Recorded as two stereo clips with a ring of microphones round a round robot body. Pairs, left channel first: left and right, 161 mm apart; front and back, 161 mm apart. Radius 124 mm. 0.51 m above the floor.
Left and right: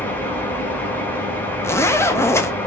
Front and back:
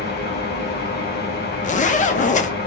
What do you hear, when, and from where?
0.0 s an engine running: 10° left, 1.3 m
1.6 s a zipper: 20° left, 0.6 m